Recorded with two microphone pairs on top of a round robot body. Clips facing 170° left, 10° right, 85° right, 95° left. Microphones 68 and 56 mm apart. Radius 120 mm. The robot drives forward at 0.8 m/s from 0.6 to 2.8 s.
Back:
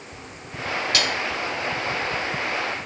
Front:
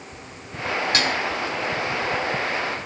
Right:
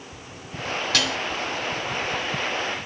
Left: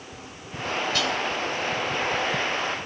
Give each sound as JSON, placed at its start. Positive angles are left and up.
{"t": 0.9, "sound": "dishes clattering", "azimuth_deg": -65, "distance_m": 2.0}